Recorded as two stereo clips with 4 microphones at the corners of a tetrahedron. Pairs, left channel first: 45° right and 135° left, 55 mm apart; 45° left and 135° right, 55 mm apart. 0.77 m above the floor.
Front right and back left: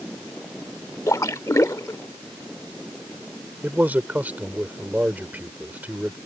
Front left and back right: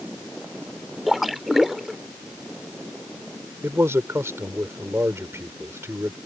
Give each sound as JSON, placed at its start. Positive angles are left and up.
{"t": 1.1, "sound": "a splash", "azimuth_deg": -50}
{"t": 3.6, "sound": "a man speaking", "azimuth_deg": -170}